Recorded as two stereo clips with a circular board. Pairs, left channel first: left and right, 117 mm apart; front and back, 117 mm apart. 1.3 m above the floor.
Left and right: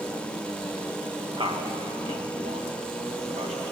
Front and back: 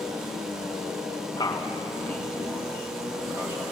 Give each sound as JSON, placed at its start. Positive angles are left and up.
{"t": 1.4, "sound": "a man speaking", "azimuth_deg": -50, "distance_m": 1.5}